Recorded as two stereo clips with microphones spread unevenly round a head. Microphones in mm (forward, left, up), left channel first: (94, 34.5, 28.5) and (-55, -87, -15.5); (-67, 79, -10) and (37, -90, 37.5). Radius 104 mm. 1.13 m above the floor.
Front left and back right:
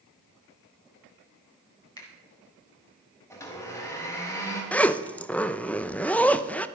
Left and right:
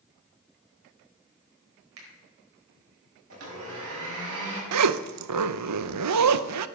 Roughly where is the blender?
Ahead right.